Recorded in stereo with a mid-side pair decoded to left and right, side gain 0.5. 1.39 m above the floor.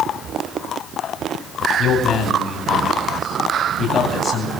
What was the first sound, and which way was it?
A man speaking, 50° left.